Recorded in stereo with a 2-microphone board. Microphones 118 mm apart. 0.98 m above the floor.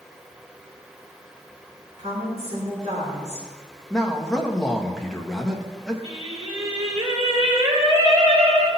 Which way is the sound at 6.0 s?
50° right (ahead or behind).